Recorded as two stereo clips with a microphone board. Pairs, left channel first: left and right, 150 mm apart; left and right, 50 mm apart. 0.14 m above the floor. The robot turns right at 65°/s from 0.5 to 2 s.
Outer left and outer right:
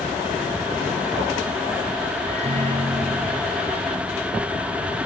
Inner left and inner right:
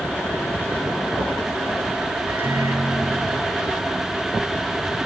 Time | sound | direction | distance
2.3 | a microwave | 45° right (ahead or behind) | 4.5 m